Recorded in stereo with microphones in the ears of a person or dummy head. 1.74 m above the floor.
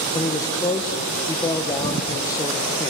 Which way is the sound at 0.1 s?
15° left (ahead or behind).